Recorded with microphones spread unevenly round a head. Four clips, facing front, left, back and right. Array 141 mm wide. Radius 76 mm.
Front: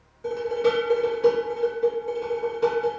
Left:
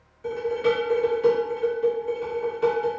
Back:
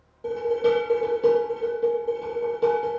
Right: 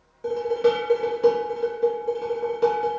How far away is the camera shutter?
I don't hear a camera shutter.